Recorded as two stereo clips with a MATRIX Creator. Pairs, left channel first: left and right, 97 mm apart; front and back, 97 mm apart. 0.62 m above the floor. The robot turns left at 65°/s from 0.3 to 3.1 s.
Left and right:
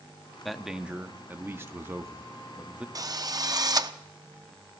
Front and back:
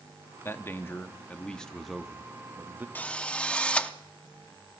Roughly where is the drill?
Ahead right.